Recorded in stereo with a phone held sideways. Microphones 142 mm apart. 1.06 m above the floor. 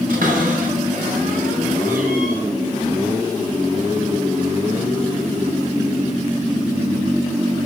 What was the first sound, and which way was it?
A cupboard door, 75° right (ahead or behind).